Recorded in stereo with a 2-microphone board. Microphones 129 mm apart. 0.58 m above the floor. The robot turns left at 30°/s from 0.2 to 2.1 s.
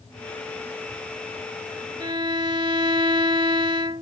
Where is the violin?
35° right (ahead or behind); by 4.0 s 40° right (ahead or behind).